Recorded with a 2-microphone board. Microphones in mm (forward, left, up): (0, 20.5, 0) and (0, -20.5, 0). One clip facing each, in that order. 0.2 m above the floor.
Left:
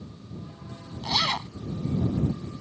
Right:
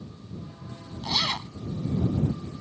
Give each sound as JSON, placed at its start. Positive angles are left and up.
{"t": 1.0, "sound": "a zipper", "side_deg": 20}